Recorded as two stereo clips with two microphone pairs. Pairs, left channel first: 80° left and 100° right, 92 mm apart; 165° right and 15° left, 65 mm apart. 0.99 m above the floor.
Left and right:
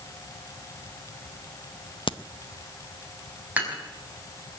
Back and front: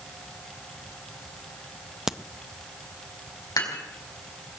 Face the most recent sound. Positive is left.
turn(degrees=-175)